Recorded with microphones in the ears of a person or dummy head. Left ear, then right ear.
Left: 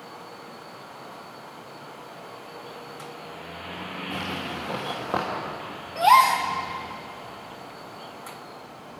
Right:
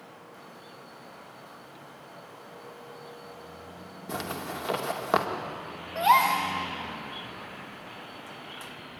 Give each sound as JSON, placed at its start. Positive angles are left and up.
{"t": 4.1, "sound": "a zipper", "side_deg": -80, "distance_m": 2.5}
{"t": 6.0, "sound": "a gasp", "side_deg": -5, "distance_m": 2.5}